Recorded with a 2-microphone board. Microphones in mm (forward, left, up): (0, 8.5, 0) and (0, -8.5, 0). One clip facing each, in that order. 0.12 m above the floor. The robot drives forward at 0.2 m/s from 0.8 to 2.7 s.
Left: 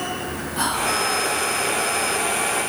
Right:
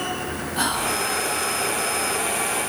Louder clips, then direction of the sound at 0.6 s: Left 2 dB; centre (ahead or behind).